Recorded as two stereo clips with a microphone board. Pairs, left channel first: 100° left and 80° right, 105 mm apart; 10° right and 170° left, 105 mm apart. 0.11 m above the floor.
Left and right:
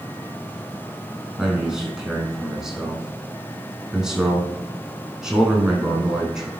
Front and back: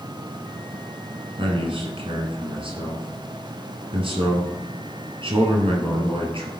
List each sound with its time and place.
1.4 s a man speaking: 165° right, 3 m